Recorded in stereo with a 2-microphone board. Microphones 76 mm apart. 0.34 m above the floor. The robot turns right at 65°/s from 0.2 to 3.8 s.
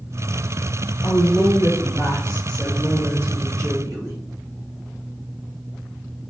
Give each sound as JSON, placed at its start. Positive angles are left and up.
{"t": 1.0, "sound": "a woman speaking", "azimuth_deg": 75, "distance_m": 1.4}